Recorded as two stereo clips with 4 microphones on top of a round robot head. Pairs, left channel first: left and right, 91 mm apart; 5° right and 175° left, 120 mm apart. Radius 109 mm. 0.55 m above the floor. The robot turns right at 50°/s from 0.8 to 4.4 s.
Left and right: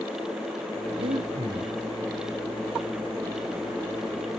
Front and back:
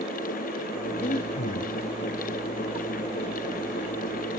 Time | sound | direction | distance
1.0 | breathing | 55° right | 0.6 m